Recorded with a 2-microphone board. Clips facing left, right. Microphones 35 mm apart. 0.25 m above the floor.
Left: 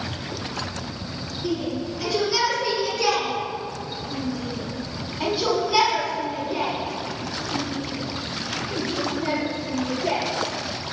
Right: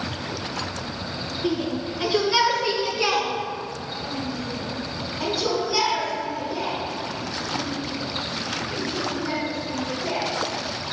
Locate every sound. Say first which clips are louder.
1.4 s a shout: right 1 dB; 40° right (ahead or behind), 4.5 m; by 10.2 s 75° left (ahead or behind), 6 m